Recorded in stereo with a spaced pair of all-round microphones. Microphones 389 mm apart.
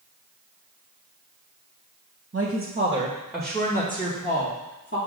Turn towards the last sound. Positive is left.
turn(degrees=30)  # may be behind; listen again after turning